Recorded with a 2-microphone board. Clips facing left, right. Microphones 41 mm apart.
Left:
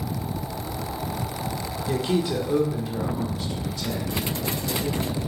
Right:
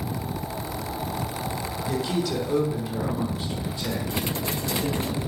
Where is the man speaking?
25° left (ahead or behind), 1.1 m; by 5.2 s 40° right (ahead or behind), 2.0 m.